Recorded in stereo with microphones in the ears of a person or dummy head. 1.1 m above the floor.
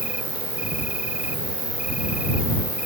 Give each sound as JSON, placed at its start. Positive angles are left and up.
{"t": 0.0, "sound": "an insect", "side_deg": -5}